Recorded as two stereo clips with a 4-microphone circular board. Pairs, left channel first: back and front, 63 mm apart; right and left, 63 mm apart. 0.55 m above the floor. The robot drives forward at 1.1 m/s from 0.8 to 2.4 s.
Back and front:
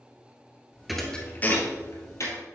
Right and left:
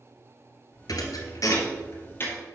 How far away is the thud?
About 1.2 m.